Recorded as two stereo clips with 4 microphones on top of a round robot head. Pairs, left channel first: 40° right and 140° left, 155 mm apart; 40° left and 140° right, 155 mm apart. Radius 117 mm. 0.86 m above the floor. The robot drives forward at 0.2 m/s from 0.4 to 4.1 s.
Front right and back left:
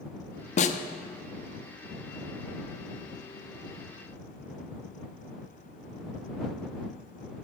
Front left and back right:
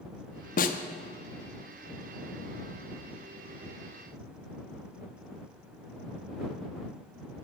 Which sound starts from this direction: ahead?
A snare drum, at 0.6 s.